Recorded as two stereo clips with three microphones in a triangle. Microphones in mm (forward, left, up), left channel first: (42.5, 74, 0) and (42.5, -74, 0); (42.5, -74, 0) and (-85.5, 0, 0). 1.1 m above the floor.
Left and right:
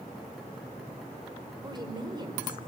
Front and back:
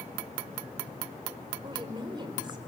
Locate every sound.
1.6 s a woman speaking: 150° right, 4.5 m